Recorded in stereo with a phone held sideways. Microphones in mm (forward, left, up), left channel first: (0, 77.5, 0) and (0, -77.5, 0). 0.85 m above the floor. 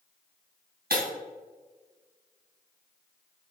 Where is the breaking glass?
75° right (ahead or behind), 3 m.